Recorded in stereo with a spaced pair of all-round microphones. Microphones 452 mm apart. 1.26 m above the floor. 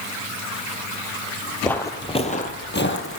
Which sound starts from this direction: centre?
Footsteps, at 1.6 s.